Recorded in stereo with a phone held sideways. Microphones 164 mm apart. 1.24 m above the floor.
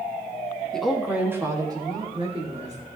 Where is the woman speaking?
5° left (ahead or behind), 2 m; by 2.8 s 40° right (ahead or behind), 3 m.